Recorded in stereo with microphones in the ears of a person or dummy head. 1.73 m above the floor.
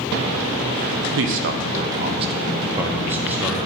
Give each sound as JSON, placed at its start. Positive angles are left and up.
{"t": 1.2, "sound": "a man speaking", "side_deg": -75, "distance_m": 0.6}